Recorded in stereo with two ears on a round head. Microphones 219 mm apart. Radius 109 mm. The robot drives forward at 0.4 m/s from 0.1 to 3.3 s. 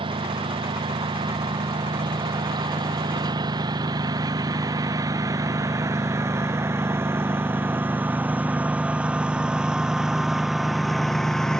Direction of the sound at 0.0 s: 20° right (ahead or behind).